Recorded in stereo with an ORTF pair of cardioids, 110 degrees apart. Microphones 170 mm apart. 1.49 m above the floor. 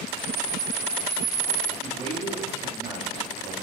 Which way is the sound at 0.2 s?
55° right.